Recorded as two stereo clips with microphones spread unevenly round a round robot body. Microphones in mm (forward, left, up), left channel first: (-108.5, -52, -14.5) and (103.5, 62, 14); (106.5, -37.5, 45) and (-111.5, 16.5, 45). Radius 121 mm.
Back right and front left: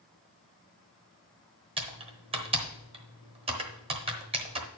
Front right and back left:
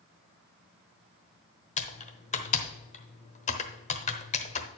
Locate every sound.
1.8 s typing on a keyboard: 30° right, 1.1 m